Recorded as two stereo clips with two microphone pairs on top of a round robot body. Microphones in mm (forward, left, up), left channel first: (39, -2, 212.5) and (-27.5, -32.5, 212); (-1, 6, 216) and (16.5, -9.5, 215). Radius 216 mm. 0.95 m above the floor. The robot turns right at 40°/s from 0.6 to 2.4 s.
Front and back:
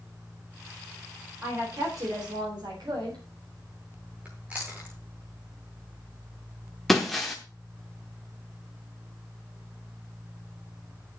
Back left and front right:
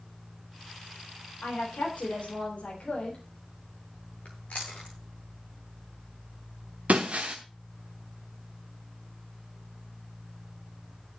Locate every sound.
1.4 s a woman speaking: 140° left, 3.5 m; by 3.2 s straight behind, 3.5 m
4.2 s chewing: 130° left, 0.6 m
6.9 s breaking glass: 65° right, 0.8 m